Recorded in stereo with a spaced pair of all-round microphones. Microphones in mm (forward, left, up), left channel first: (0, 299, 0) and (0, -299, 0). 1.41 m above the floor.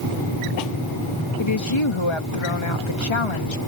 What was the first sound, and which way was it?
A woman speaking, 50° left (ahead or behind).